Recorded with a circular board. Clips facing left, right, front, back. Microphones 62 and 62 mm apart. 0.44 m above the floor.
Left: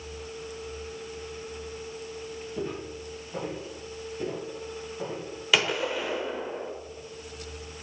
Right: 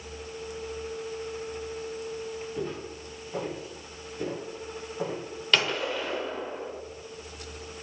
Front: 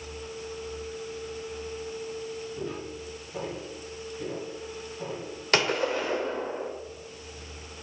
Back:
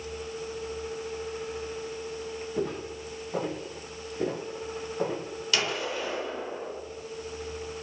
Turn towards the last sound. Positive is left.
turn(degrees=15)